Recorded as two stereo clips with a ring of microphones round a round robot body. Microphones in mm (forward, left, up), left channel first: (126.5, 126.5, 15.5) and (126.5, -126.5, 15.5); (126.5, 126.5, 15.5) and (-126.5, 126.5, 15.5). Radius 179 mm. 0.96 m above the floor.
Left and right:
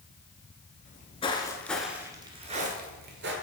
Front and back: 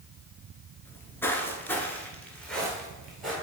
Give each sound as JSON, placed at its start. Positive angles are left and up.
{"t": 0.8, "sound": "footsteps", "azimuth_deg": 75, "distance_m": 1.0}